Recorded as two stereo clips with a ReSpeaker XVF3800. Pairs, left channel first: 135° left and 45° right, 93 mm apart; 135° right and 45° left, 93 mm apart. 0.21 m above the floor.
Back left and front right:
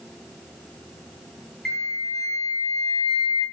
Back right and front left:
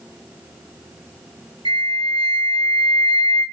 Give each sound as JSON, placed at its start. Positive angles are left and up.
{"t": 1.6, "sound": "a flute", "azimuth_deg": 50, "distance_m": 0.8}